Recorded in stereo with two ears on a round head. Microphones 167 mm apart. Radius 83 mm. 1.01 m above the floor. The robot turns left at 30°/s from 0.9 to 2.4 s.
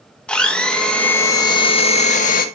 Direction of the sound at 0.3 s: 175° left.